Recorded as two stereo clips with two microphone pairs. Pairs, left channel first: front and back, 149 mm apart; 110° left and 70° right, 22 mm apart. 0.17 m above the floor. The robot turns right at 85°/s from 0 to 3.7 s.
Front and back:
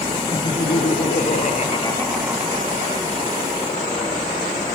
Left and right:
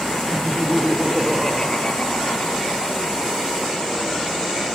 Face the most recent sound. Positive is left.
turn(degrees=-140)